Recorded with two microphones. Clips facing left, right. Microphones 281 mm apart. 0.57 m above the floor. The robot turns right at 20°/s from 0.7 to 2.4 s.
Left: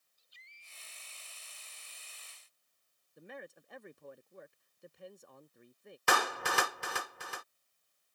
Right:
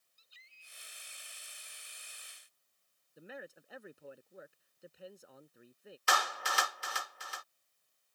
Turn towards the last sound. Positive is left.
turn(degrees=60)  # may be behind; listen again after turning